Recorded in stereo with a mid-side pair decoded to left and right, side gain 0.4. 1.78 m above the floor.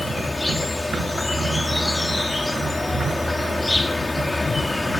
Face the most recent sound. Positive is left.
turn(degrees=20)